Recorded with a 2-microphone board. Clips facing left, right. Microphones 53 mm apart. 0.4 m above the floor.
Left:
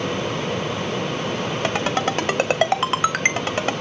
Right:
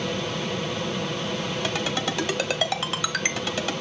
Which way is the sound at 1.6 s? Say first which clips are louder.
Left 7 dB; 40° left (ahead or behind).